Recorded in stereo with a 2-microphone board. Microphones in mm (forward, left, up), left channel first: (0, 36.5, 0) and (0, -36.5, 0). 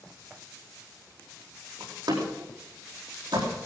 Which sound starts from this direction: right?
A door slam, at 1.8 s.